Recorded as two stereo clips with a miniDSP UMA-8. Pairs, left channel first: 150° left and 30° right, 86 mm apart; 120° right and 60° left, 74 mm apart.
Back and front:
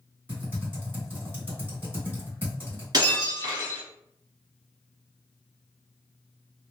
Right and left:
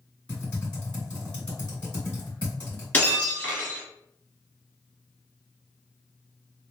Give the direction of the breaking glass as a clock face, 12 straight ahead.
2 o'clock.